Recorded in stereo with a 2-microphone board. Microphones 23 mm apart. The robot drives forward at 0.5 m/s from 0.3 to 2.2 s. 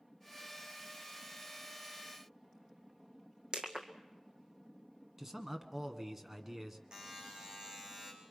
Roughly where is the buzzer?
Right.